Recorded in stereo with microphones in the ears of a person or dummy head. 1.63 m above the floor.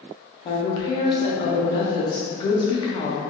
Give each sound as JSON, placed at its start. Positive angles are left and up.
{"t": 0.5, "sound": "a woman speaking", "side_deg": 30, "distance_m": 0.6}